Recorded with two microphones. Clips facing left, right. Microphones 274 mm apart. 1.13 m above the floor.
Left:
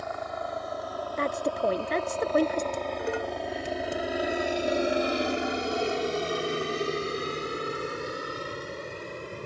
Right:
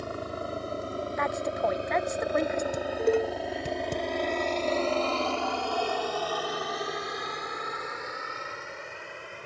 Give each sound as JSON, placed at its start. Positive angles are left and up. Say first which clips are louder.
{"t": 0.0, "sound": "a helicopter", "louder": "right 1 dB", "side_deg": -35}
{"t": 1.2, "sound": "a woman speaking", "louder": "left 3 dB", "side_deg": 35}
{"t": 2.7, "sound": "dishes clattering", "louder": "right 6 dB", "side_deg": -50}